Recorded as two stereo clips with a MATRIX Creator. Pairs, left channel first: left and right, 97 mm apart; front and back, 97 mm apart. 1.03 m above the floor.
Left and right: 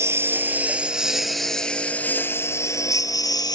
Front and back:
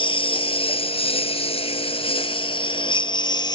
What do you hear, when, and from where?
0.0 s a lawn mower: 30° right; by 3.5 s 45° left